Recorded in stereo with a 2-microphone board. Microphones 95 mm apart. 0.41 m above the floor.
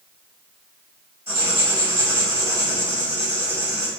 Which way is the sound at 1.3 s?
20° right (ahead or behind).